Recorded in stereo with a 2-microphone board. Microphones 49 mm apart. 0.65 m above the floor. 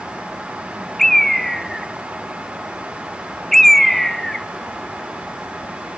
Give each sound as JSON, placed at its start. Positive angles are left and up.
{"t": 1.0, "sound": "a bird", "side_deg": 5, "distance_m": 0.6}